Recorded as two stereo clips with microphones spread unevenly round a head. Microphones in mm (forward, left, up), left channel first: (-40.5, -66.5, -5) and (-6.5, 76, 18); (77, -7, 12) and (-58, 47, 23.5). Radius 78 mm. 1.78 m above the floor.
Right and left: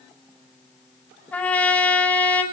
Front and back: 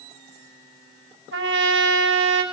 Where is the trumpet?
175° left, 5.5 m.